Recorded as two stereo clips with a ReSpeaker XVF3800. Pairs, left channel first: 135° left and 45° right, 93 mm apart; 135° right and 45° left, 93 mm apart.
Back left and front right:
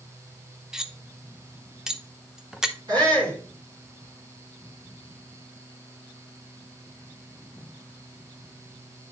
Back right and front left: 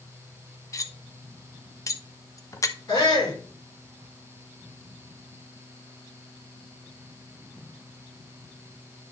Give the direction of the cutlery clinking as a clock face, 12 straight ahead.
4 o'clock.